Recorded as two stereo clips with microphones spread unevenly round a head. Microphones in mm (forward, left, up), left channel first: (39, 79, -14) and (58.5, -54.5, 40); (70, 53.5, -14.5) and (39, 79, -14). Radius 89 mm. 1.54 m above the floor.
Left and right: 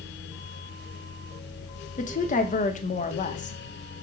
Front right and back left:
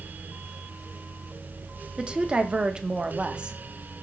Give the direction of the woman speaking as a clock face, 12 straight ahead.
10 o'clock.